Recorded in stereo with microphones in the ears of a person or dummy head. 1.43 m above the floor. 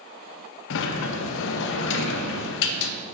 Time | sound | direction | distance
0.7 | a sliding door | 70° left (ahead or behind) | 0.6 m